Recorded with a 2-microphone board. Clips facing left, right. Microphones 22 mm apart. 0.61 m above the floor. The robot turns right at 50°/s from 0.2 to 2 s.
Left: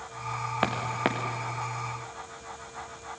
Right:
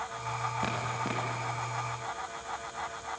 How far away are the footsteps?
About 4 m.